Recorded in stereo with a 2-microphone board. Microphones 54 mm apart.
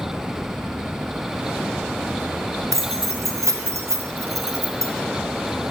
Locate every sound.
2.7 s keys jangling: 65° right (ahead or behind), 0.5 m